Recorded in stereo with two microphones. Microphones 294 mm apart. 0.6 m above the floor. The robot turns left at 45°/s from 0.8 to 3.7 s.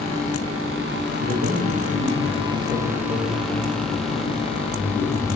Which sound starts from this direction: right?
A man speaking, at 1.2 s.